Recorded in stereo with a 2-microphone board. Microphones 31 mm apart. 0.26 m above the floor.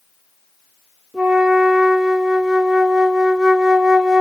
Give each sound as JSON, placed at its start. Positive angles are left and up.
{"t": 1.1, "sound": "a flute", "side_deg": 0, "distance_m": 1.2}